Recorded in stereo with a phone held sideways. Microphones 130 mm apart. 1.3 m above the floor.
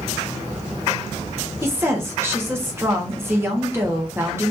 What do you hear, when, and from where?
1.6 s a woman speaking: 20° right (ahead or behind), 1.2 m